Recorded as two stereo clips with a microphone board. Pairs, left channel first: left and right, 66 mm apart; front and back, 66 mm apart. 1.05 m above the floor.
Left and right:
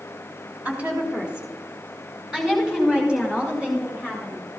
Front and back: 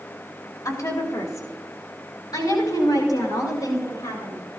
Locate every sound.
0.7 s a woman speaking: 20° right, 3.5 m; by 4.4 s 10° right, 7.5 m